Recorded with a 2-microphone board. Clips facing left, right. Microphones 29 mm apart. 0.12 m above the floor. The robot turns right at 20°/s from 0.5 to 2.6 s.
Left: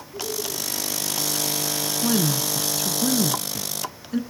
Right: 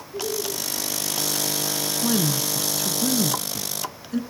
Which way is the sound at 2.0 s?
Centre (ahead or behind).